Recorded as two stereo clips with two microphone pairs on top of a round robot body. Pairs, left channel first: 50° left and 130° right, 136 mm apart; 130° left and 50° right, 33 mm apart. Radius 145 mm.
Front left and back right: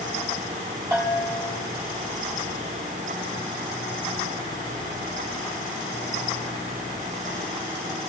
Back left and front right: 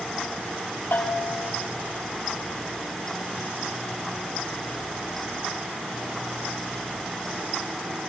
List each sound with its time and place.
0.9 s a bell: 155° left, 9 m